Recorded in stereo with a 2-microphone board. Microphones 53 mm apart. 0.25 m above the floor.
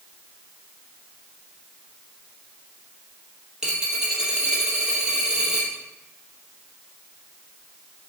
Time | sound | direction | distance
3.6 | a dropped coin | 15° right (ahead or behind) | 2.5 m